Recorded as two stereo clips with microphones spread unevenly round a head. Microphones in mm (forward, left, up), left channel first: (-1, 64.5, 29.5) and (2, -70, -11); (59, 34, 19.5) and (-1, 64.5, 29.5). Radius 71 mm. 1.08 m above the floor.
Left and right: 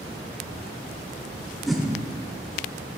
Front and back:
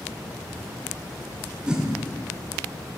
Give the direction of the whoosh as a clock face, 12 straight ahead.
4 o'clock.